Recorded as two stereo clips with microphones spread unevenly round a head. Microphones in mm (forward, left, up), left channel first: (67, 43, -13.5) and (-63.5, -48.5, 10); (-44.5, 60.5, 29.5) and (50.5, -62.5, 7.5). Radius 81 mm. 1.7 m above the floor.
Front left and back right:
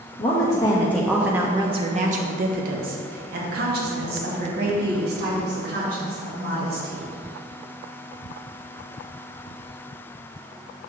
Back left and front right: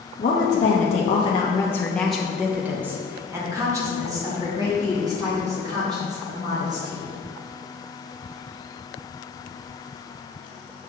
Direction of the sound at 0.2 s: 95° left.